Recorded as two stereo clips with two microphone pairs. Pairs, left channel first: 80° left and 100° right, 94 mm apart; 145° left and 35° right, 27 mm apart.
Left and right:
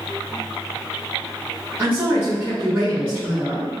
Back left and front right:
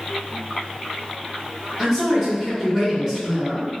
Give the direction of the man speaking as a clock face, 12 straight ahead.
5 o'clock.